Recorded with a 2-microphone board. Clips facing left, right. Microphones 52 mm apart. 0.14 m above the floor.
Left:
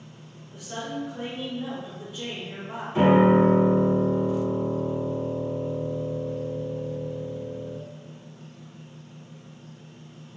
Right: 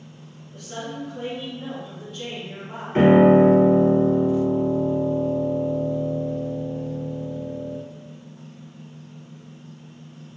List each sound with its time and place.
0.5 s a woman speaking: 15° left (ahead or behind), 1.6 m
3.0 s a piano: 55° right (ahead or behind), 0.9 m